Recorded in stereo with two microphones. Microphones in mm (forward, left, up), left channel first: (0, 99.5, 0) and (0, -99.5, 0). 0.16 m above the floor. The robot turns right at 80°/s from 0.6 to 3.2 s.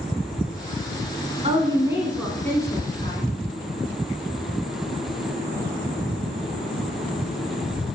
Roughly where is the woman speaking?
Ahead right.